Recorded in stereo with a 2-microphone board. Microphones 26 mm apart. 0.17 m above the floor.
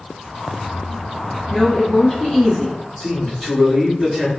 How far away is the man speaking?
About 1.7 m.